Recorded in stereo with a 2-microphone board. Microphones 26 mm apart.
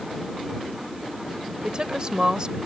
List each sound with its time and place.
1.6 s a woman speaking: 35° right (ahead or behind)